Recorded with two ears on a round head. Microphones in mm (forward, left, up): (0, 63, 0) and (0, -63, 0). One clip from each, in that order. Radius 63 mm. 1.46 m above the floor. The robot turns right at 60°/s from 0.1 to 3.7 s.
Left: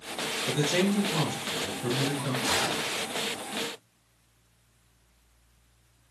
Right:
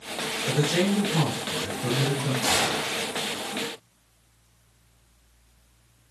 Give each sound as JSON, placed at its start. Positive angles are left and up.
{"t": 0.5, "sound": "a man speaking", "azimuth_deg": 15, "distance_m": 1.3}
{"t": 2.4, "sound": "a gunshot", "azimuth_deg": -130, "distance_m": 0.8}